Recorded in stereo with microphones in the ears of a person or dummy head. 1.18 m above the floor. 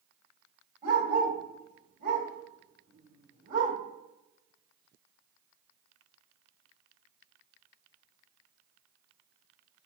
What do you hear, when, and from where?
0.8 s a dog barking: 45° right (ahead or behind), 1.6 m